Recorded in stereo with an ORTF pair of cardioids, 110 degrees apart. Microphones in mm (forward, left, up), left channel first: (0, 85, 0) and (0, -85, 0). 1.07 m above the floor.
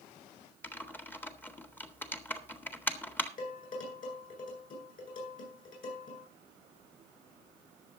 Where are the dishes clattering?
50° left, 9.5 m.